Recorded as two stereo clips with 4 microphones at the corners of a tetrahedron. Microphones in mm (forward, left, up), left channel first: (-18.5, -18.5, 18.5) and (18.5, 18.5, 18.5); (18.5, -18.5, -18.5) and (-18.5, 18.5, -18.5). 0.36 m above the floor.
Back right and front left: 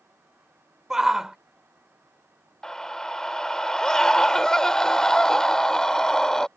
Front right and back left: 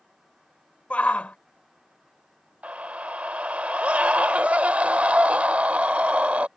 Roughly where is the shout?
Ahead right.